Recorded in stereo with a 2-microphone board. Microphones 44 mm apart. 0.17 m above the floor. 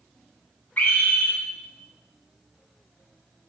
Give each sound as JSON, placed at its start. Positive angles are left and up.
{"t": 0.8, "sound": "a scream", "side_deg": 35, "distance_m": 2.5}